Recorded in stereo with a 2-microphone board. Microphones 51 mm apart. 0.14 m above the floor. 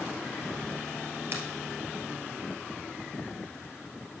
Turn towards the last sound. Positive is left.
turn(degrees=-50)  # may be behind; listen again after turning